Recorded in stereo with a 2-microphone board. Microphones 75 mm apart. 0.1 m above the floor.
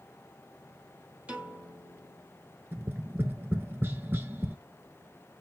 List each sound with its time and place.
1.3 s a piano: 20° right (ahead or behind), 2.5 m
2.7 s tapping: 30° right (ahead or behind), 1.0 m